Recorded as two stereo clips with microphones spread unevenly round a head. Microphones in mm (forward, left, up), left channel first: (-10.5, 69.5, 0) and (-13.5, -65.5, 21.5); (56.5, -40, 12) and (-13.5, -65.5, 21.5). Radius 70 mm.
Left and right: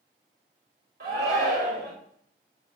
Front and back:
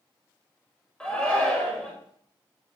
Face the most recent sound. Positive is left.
turn(degrees=-55)